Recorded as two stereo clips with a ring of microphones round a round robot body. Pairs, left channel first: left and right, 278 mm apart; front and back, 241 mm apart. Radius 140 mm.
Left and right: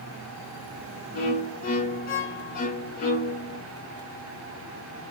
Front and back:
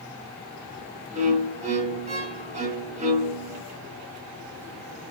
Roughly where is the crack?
I don't hear a crack.